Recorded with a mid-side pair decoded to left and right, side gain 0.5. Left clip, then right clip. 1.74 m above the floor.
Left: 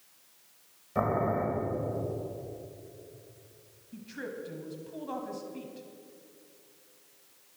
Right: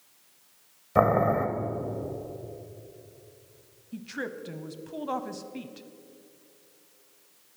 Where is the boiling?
70° right, 1.4 m.